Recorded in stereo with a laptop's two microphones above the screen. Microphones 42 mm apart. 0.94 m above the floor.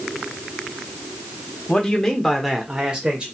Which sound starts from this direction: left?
A man speaking, at 1.7 s.